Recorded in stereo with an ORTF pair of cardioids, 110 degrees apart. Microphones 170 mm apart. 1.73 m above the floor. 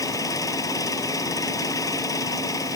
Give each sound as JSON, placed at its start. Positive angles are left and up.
{"t": 0.0, "sound": "an engine running", "azimuth_deg": 20}